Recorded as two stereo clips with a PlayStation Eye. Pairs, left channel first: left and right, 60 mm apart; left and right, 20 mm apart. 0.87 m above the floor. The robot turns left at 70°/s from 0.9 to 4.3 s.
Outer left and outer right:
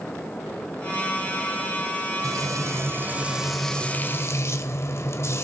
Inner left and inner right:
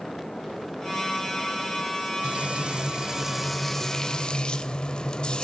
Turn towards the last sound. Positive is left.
turn(degrees=125)